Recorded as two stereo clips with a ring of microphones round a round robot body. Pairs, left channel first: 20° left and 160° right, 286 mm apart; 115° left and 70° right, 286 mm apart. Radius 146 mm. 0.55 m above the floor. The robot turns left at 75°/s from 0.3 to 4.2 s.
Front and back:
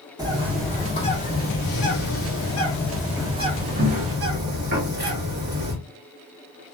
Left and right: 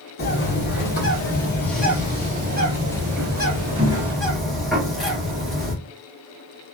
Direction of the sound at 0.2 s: 135° left.